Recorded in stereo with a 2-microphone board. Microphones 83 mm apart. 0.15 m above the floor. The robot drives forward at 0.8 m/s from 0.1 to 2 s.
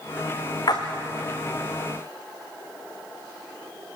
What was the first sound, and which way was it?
A splash, 55° left (ahead or behind).